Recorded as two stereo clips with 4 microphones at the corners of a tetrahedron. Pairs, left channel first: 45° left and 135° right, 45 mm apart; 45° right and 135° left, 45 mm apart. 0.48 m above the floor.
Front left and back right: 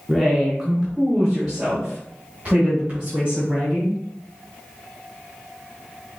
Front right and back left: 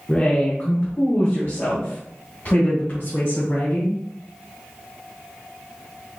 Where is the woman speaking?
50° right, 0.9 m; by 4.0 s 70° right, 3.5 m.